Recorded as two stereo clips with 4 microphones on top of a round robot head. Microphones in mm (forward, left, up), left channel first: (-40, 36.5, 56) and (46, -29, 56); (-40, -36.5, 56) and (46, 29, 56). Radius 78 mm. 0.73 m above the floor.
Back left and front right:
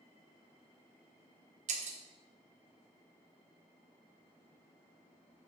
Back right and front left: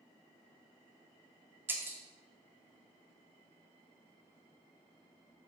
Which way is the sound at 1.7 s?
35° right.